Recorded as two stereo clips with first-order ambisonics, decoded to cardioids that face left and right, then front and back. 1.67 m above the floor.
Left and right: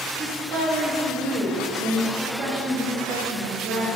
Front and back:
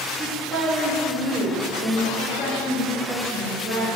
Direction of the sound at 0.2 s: 130° right.